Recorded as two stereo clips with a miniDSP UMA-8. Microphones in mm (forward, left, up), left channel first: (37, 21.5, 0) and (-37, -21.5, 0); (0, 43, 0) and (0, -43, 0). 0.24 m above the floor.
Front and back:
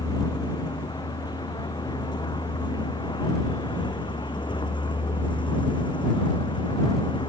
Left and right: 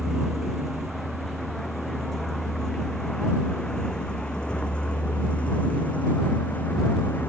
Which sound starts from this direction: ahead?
A vehicle, at 0.0 s.